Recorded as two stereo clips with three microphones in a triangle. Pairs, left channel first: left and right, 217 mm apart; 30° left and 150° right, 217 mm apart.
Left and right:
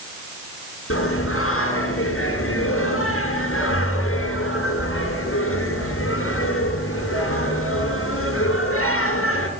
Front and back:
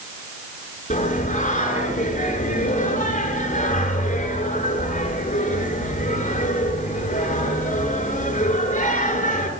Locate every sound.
0.9 s singing: 85° left, 9.5 m